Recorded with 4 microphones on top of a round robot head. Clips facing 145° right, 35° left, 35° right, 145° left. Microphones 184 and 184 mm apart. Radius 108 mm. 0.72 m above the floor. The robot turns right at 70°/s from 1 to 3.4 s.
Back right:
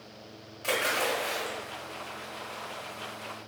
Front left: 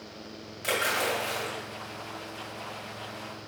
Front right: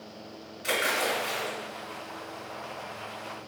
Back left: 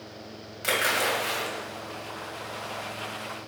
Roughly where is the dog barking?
I don't hear a dog barking.